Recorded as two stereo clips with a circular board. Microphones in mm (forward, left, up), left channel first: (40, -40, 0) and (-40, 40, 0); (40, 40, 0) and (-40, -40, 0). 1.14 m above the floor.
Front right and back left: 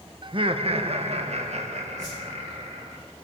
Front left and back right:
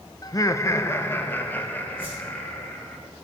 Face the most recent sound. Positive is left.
turn(degrees=-95)